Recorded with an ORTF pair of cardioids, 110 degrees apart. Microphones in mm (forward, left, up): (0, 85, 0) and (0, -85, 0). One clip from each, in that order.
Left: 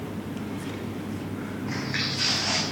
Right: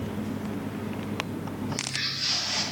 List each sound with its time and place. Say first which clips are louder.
1.7 s footsteps: left 1 dB; 65° left, 4.5 m